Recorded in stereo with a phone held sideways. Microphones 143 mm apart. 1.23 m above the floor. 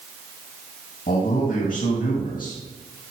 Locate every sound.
1.1 s a man speaking: 70° left (ahead or behind), 1.8 m